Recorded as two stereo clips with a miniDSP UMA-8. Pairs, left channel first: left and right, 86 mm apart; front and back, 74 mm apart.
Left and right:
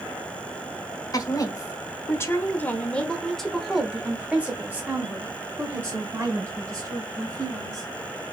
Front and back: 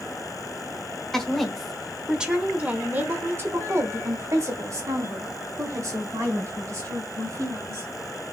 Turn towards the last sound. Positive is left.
turn(degrees=-140)